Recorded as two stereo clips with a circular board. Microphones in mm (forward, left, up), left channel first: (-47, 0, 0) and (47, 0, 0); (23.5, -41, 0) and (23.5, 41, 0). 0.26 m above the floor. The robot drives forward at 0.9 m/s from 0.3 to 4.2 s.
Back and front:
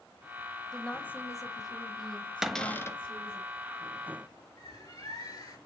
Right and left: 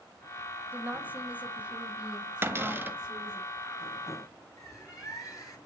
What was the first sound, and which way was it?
A woman speaking, 100° left.